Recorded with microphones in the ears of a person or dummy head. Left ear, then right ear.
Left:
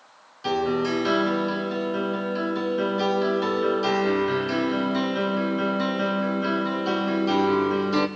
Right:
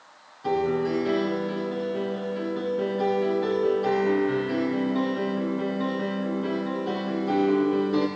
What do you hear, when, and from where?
0.4 s a piano: 75° left (ahead or behind), 2.5 m